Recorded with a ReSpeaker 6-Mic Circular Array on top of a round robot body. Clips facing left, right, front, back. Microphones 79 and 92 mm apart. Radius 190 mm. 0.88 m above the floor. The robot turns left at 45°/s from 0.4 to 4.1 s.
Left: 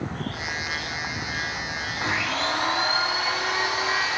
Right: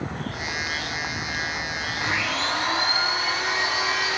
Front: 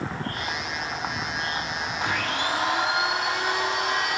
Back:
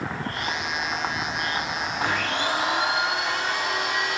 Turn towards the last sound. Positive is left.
turn(degrees=45)